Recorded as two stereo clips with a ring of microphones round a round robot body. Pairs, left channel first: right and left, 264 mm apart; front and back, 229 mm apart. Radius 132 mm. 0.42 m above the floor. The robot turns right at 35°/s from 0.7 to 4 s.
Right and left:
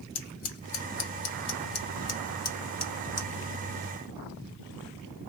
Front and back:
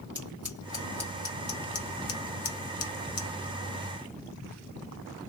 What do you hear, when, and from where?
0.1 s scissors: 95° right, 1.8 m; by 3.3 s 5° right, 1.8 m